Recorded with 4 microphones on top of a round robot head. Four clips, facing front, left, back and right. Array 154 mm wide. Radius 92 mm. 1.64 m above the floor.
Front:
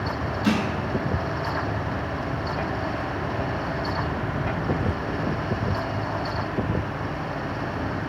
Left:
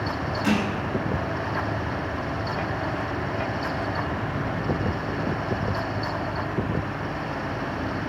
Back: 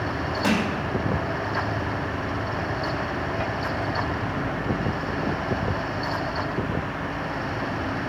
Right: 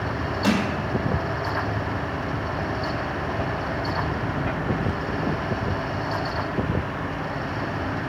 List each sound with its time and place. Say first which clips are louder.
0.4 s crushing: right 1 dB, even; 150° right, 2 m